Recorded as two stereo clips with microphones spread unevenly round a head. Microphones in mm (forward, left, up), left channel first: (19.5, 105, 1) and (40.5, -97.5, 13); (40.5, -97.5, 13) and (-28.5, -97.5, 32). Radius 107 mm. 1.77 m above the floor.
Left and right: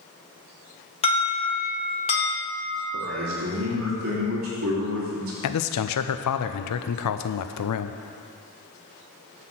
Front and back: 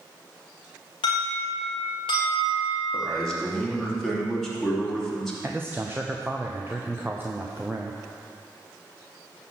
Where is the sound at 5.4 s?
100° left, 0.6 m.